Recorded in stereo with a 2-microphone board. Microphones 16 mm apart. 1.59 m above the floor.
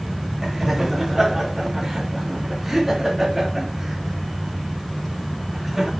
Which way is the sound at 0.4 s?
15° right (ahead or behind).